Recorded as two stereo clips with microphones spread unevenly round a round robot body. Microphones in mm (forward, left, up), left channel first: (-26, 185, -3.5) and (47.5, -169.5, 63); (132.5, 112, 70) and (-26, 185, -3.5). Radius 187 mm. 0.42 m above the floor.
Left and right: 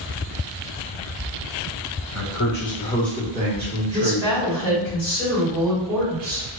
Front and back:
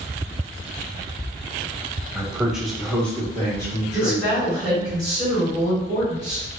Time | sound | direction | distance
2.1 | a man speaking | 100° left | 1.1 m
3.9 | a woman speaking | 165° right | 1.9 m